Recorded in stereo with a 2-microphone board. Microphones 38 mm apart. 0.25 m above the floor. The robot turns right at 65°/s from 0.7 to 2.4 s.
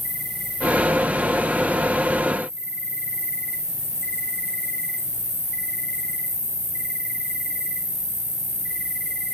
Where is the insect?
55° left, 5.5 m; by 9.3 s 165° left, 5.5 m.